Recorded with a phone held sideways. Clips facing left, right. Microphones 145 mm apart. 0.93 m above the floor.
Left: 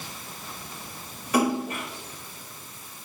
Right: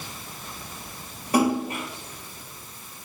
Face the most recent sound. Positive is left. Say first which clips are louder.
# right 2 dB
turn(degrees=-30)  # may be behind; listen again after turning